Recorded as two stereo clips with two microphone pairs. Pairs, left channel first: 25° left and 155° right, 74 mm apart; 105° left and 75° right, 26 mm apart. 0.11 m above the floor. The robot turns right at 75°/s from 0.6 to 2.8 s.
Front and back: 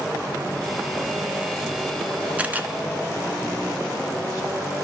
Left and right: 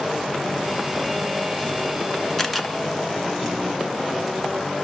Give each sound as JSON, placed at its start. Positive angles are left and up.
{"t": 2.4, "sound": "a camera shutter", "azimuth_deg": 165, "distance_m": 0.9}